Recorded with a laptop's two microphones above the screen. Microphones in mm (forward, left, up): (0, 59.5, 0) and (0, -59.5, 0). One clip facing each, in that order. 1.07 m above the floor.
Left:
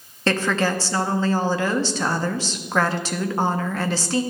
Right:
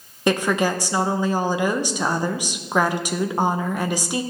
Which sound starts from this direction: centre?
A woman speaking, at 0.3 s.